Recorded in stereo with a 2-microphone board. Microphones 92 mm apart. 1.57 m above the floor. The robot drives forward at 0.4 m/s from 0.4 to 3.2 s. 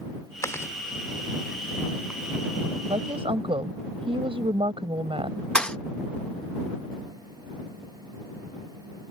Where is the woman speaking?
85° right; by 5.5 s 90° right.